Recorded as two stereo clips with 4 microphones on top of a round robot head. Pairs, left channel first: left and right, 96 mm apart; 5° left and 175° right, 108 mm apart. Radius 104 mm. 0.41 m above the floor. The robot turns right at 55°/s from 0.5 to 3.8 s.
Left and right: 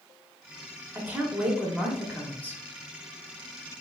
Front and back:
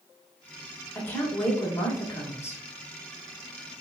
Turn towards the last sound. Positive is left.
turn(degrees=110)